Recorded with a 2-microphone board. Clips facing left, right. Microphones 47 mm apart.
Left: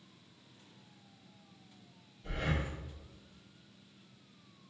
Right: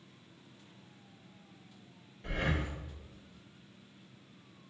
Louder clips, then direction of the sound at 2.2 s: Right 2 dB; 70° right (ahead or behind).